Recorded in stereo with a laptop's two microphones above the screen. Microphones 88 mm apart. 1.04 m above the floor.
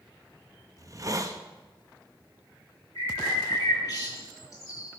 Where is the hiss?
40° right (ahead or behind), 1.0 m.